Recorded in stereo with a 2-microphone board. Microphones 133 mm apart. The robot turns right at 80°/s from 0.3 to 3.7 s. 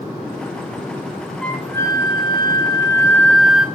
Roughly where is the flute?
Ahead.